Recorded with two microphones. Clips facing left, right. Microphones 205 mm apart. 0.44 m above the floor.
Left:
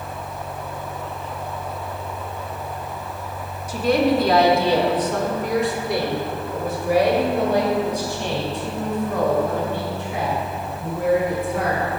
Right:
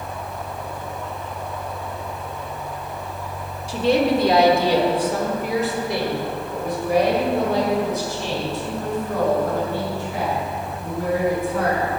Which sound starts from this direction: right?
A woman speaking, at 3.7 s.